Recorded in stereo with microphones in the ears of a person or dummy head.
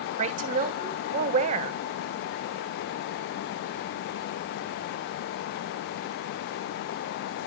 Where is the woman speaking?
45° right (ahead or behind), 1.1 m.